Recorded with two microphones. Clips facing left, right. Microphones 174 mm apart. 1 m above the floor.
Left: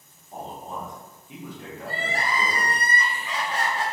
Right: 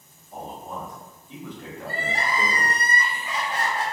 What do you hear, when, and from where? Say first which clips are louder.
0.3 s a man speaking: even; 30° left (ahead or behind), 1.1 m; by 2.8 s 20° right (ahead or behind), 1.0 m
1.8 s crying: even; 80° left, 1.8 m